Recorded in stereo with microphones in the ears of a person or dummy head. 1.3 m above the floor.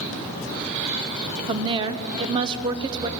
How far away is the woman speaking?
About 0.9 m.